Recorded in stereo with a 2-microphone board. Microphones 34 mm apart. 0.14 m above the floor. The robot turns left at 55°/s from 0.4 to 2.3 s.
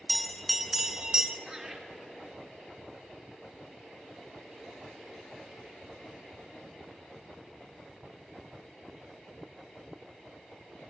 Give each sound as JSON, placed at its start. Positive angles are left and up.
{"t": 0.1, "sound": "a bell", "azimuth_deg": 5, "distance_m": 0.6}
{"t": 1.5, "sound": "laughter", "side_deg": -20, "distance_m": 2.5}